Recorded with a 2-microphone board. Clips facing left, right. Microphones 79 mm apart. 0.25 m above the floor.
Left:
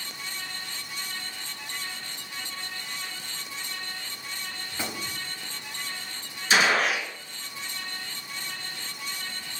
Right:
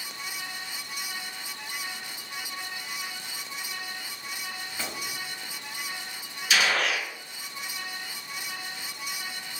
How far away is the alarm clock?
No alarm clock in this recording.